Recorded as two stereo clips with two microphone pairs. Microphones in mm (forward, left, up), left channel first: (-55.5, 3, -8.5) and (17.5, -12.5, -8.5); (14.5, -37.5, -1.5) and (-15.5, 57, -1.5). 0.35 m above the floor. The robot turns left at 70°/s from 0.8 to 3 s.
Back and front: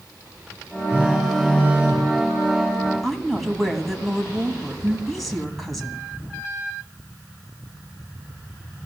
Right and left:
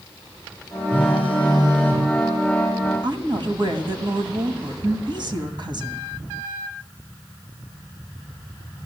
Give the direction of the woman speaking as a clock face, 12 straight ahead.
9 o'clock.